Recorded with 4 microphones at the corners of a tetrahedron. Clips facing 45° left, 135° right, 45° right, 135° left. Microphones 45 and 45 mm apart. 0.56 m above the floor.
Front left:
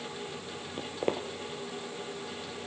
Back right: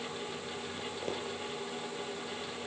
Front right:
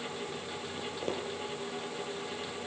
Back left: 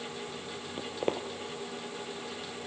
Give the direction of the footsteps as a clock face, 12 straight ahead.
9 o'clock.